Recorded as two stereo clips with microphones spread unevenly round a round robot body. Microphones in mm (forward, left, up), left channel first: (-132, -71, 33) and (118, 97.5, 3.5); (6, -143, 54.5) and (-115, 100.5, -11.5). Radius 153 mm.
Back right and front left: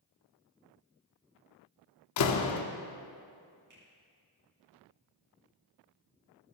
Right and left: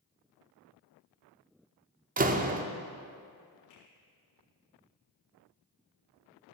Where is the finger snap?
25° right, 5.5 m.